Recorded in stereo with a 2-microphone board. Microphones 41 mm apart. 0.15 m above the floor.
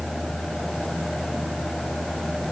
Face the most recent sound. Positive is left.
No sound to turn to.